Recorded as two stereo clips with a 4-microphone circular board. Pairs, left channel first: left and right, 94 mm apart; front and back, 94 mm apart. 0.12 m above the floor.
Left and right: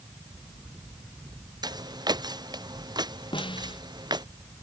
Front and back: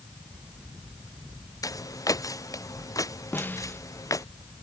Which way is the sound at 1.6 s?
50° right.